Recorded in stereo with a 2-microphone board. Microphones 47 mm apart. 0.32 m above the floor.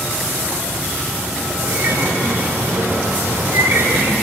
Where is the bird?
70° right (ahead or behind), 5 m.